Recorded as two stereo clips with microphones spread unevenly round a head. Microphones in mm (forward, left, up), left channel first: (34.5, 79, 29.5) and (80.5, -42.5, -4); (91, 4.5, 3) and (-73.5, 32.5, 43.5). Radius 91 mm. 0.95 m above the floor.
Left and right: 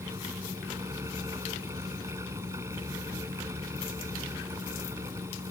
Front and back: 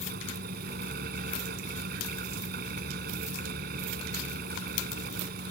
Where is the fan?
150° right.